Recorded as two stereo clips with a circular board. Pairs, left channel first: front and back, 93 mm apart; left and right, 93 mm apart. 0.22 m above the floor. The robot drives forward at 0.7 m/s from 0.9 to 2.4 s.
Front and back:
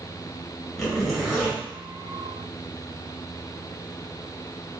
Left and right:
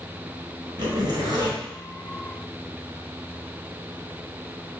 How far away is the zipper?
About 2 m.